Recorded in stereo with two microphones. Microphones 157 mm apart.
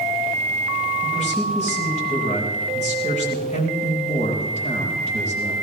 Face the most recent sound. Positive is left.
turn(degrees=45)  # may be behind; listen again after turning